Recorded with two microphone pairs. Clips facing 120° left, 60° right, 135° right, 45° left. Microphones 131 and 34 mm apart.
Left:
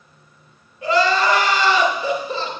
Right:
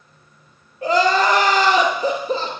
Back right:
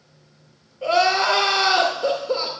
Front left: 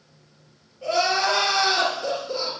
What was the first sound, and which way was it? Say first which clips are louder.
Crying: right 1 dB, back right 4 dB; 90° right.